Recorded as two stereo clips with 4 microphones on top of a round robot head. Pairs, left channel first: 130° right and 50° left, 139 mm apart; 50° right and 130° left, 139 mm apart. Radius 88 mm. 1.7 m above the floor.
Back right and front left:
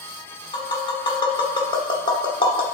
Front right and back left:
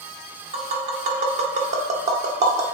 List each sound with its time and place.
0.5 s tapping: 170° left, 1.2 m